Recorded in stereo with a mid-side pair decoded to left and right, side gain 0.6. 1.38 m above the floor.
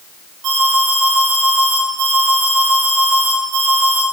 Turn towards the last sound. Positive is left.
turn(degrees=-50)